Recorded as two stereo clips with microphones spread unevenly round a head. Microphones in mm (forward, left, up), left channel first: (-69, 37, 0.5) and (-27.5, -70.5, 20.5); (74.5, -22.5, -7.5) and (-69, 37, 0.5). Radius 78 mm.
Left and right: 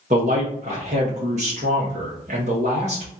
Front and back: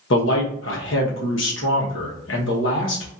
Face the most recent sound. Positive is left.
turn(degrees=-20)